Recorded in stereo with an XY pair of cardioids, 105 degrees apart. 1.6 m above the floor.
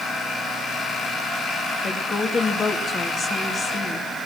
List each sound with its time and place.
1.8 s a woman speaking: 40° left, 3 m